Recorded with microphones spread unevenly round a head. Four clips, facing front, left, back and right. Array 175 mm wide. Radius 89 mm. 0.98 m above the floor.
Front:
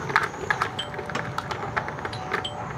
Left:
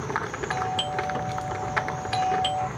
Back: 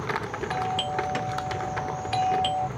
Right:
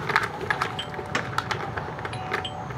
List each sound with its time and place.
0.5 s a doorbell: 145° left